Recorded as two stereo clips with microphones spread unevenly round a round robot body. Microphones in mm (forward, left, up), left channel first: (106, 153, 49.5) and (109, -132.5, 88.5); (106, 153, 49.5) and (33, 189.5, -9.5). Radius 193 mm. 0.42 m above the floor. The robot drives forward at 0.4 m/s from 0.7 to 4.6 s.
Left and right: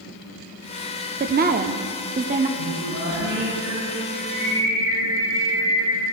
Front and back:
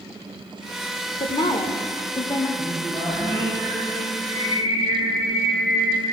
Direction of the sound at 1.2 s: 75° right.